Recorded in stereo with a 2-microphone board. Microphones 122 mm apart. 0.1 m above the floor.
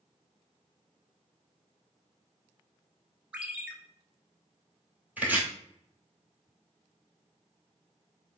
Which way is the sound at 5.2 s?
15° right (ahead or behind).